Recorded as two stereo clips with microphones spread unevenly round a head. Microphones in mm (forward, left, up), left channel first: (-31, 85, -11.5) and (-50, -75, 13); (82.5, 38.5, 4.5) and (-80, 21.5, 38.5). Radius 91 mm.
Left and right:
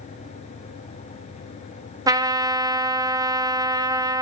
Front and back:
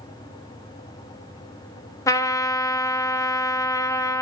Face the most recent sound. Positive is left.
turn(degrees=-70)